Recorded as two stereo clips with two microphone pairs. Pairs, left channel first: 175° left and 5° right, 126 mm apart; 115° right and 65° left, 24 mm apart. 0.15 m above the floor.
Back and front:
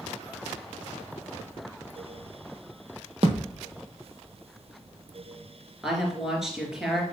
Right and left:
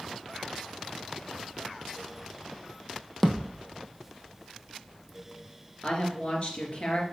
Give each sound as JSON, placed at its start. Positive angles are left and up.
{"t": 3.2, "sound": "a thud", "azimuth_deg": -40, "distance_m": 1.4}
{"t": 5.8, "sound": "a woman speaking", "azimuth_deg": -90, "distance_m": 2.5}